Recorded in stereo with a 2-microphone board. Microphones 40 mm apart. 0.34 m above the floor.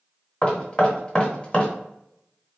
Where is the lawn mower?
I don't hear a lawn mower.